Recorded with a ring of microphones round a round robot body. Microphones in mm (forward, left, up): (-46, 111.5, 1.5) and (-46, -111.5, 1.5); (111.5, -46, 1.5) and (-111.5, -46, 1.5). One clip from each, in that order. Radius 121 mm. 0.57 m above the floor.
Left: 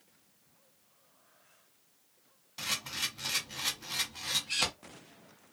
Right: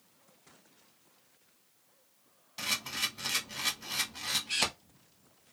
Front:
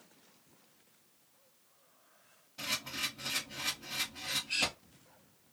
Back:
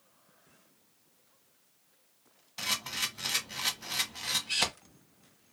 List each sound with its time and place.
2.6 s a camera shutter: 175° right, 1.1 m